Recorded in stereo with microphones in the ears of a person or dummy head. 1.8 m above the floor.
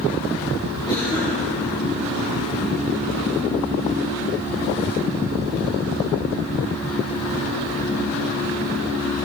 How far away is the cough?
About 5 m.